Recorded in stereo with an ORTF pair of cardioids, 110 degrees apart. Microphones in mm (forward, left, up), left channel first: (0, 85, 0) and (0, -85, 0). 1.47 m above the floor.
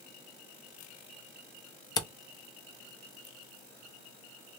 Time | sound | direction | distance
2.0 | a camera shutter | 25° left | 0.6 m